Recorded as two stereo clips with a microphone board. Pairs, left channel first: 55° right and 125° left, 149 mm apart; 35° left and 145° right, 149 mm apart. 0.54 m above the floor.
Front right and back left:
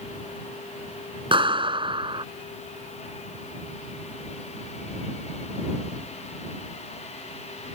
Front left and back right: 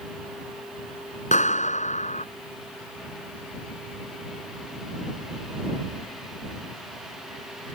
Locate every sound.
1.3 s a clap: 70° left